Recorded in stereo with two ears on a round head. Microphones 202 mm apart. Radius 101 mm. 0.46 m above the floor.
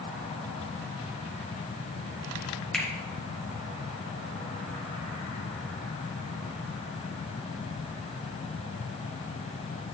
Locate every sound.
2.7 s a finger snap: 5° left (ahead or behind), 1.5 m